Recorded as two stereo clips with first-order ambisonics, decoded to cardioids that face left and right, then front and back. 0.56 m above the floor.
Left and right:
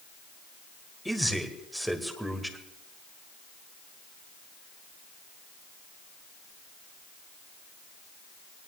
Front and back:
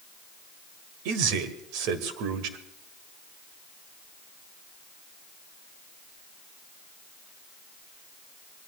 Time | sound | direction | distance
1.1 | a man speaking | straight behind | 1.9 m